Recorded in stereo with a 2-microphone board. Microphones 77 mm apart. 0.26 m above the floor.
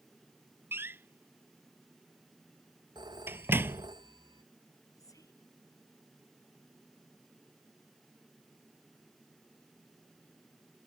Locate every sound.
0.7 s a door slam: 30° right (ahead or behind)
3.0 s a phone ringing: 75° right (ahead or behind)
5.0 s whispering: 50° left (ahead or behind)